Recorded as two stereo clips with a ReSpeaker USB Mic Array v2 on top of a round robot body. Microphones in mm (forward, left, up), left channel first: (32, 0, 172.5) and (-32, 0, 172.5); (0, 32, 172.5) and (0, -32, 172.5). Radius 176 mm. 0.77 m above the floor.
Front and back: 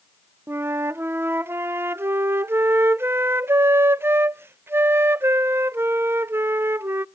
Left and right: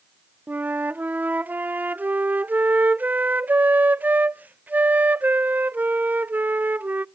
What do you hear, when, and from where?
0.5 s a flute: 145° right, 0.5 m